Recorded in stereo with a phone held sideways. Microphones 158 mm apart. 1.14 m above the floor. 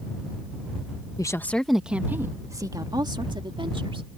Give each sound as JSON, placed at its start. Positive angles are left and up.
{"t": 1.2, "sound": "a woman speaking", "side_deg": 25}